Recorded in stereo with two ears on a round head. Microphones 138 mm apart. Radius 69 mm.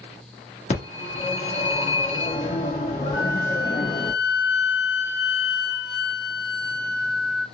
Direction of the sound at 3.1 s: 65° left (ahead or behind).